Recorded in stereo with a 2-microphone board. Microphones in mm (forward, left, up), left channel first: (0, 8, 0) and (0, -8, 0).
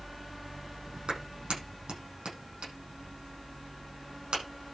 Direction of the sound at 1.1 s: 65° right (ahead or behind).